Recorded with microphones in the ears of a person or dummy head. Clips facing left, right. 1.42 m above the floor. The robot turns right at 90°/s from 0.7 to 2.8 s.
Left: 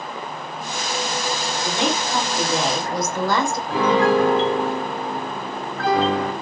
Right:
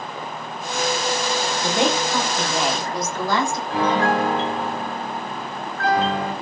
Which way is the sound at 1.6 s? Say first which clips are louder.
Right 2 dB; 55° right.